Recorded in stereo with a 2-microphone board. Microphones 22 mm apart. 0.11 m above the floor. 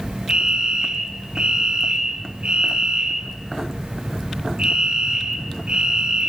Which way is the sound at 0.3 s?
45° right (ahead or behind).